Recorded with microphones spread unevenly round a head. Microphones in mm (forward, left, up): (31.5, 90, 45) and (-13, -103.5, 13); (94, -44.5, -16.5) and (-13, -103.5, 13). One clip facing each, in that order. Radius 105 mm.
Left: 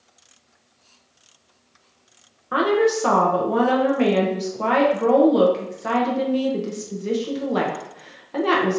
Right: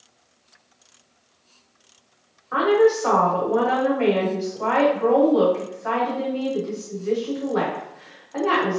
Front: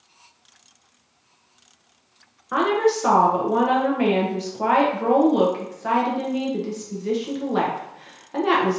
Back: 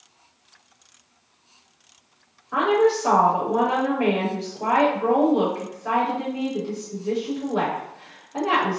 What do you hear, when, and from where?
2.5 s a woman speaking: 40° left, 0.8 m